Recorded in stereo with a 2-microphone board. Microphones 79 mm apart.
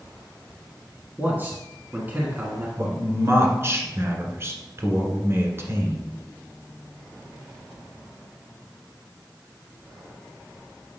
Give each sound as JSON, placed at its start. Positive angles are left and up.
{"t": 1.2, "sound": "a man speaking", "side_deg": -25, "distance_m": 1.4}
{"t": 2.8, "sound": "a man speaking", "side_deg": -35, "distance_m": 1.4}